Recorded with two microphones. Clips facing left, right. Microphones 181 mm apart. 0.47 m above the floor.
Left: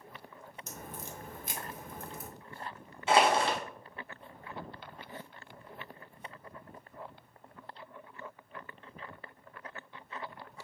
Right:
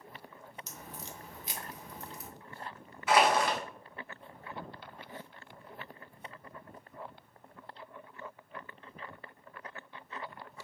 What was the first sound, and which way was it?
A crack, 50° left (ahead or behind).